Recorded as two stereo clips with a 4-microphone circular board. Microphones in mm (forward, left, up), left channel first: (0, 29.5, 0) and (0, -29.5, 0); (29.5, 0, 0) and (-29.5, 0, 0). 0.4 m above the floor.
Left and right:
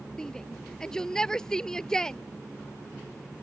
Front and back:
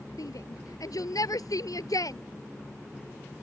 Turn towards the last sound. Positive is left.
turn(degrees=10)